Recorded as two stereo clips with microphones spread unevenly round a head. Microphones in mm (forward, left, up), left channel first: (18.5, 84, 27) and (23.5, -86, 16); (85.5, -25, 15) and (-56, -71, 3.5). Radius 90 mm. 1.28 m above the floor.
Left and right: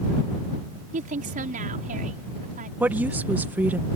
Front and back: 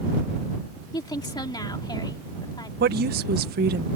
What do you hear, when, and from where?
0.9 s a woman speaking: 45° right
2.8 s a woman speaking: 170° right